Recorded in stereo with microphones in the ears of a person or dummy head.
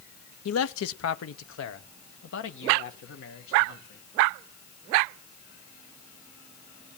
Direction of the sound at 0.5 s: 90° left.